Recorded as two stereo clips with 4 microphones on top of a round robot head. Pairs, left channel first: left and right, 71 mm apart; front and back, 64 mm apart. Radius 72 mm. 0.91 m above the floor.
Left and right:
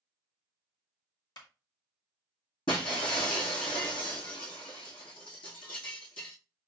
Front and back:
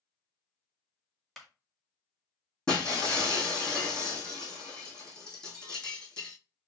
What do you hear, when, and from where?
1.4 s a clap: 85° left, 1.6 m
2.7 s breaking glass: 75° left, 1.9 m